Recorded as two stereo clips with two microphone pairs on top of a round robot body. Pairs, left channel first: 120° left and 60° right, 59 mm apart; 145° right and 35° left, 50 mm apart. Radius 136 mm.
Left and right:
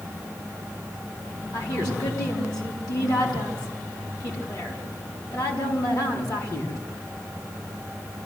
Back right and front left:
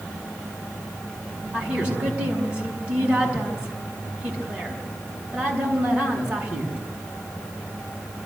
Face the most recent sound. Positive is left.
turn(degrees=105)